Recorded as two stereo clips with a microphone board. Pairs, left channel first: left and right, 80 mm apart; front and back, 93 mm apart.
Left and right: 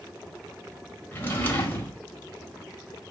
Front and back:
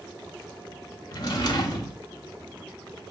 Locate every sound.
1.1 s a drawer: 25° left, 0.9 m